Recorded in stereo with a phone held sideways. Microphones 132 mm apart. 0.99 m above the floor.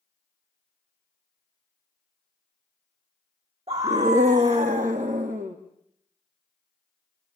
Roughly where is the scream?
Right.